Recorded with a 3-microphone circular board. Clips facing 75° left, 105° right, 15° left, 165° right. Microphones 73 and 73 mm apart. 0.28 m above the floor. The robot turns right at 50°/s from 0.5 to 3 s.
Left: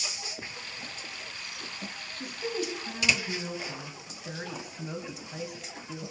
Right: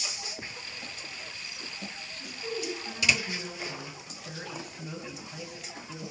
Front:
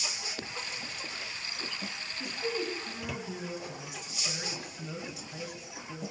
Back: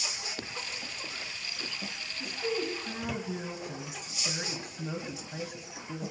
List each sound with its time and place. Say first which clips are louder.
2.1 s a woman speaking: left 3 dB, back 1 dB; 95° left, 1.9 m; by 6.1 s 135° left, 1.9 m